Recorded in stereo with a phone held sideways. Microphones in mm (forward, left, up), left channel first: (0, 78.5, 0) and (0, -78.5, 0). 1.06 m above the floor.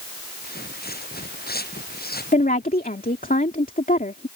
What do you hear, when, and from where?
0.4 s footsteps: 85° left; by 3.3 s 75° left (ahead or behind)
2.3 s a woman speaking: 60° left (ahead or behind)